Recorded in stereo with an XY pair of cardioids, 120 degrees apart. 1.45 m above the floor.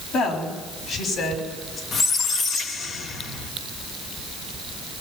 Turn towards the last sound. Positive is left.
turn(degrees=55)